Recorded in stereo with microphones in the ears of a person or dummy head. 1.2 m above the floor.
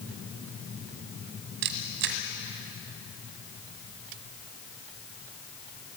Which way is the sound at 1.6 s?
60° right (ahead or behind).